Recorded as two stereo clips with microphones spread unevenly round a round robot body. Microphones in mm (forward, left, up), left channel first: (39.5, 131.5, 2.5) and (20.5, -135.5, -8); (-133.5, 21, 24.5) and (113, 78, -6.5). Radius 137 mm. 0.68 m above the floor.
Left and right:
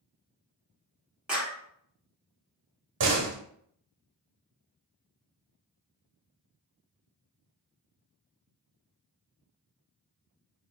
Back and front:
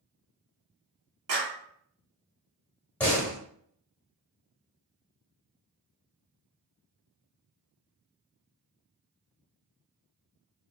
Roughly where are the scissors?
No scissors in this recording.